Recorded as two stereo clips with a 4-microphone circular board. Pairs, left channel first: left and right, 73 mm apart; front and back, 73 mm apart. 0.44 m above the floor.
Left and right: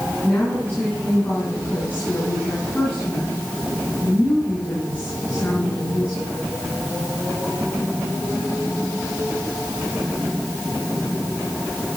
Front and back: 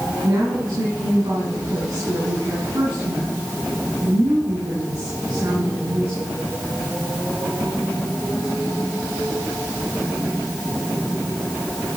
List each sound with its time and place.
0.2 s a woman speaking: 155° left, 4 m